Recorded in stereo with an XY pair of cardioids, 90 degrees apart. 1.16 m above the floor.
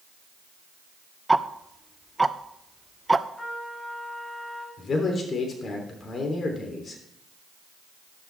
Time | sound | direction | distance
1.3 | ticking | 15° right | 0.6 m
3.4 | a trumpet | 25° left | 3 m
4.8 | a man speaking | 50° left | 3 m